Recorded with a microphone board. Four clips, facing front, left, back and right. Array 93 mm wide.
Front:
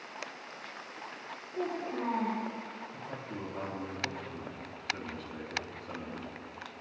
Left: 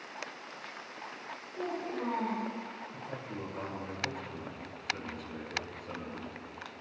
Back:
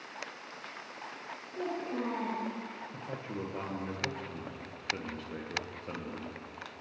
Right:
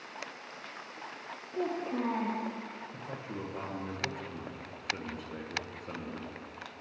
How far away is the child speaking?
About 2 m.